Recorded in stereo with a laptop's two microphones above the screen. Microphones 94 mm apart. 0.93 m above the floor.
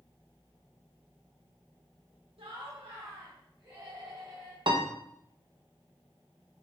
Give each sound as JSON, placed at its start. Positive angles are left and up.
{"t": 2.4, "sound": "laughter", "side_deg": -75, "distance_m": 1.1}
{"t": 4.7, "sound": "a piano", "side_deg": -60, "distance_m": 0.8}